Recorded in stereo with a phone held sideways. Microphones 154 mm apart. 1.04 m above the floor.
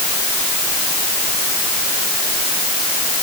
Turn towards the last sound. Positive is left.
No sound to turn to.